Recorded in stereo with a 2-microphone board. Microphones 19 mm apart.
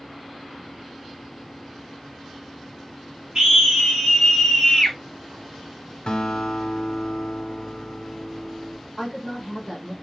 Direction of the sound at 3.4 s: 40° right (ahead or behind).